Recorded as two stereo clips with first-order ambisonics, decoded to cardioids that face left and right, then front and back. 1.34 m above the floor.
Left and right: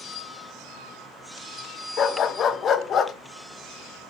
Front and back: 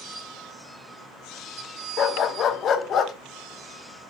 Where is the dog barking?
40° left, 1.0 m.